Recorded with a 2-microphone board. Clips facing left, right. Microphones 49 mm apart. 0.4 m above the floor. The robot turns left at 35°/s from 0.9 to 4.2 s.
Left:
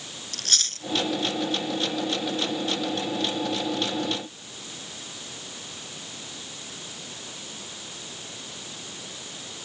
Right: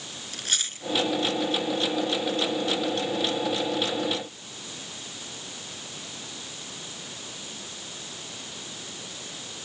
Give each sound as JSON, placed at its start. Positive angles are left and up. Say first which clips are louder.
{"t": 0.3, "sound": "chewing", "louder": "even", "side_deg": -10}